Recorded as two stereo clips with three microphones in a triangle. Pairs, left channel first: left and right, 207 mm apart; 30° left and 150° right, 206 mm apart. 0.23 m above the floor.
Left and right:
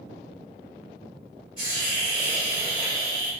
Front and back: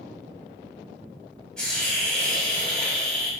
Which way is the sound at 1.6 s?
105° left.